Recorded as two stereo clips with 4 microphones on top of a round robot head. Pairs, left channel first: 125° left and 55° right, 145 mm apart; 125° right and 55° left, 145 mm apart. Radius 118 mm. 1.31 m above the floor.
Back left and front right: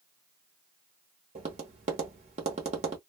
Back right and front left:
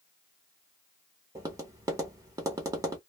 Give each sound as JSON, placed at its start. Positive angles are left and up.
{"t": 1.4, "sound": "tapping", "azimuth_deg": -15, "distance_m": 0.7}